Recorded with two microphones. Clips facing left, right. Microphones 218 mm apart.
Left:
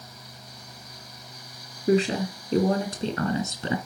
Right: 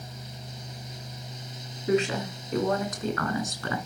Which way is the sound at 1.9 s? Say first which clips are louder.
Left 3 dB; 35° left (ahead or behind).